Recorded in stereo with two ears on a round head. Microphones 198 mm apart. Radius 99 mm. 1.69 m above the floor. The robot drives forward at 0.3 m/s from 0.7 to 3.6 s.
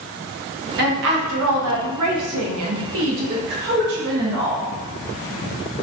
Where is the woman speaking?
45° right (ahead or behind), 0.7 m; by 4.7 s 50° right (ahead or behind), 0.6 m.